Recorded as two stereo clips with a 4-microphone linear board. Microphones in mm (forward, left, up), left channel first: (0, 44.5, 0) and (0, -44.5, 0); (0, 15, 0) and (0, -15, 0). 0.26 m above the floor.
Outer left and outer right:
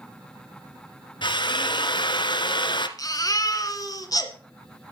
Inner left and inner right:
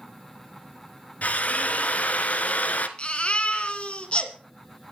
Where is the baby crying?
45° left (ahead or behind), 2 m.